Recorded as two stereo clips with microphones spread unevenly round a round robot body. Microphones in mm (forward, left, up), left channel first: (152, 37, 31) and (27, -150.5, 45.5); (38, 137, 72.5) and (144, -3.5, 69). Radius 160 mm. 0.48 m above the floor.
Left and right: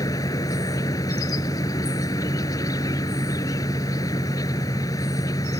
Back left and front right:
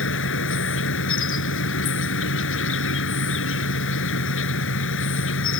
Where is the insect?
135° left.